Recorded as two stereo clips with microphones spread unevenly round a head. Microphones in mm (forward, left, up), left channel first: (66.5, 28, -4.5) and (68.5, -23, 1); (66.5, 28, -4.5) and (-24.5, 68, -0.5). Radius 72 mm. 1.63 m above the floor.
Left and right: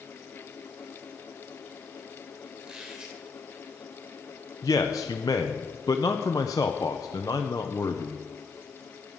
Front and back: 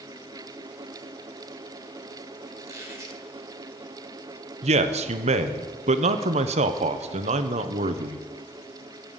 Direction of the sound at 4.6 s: 150° left.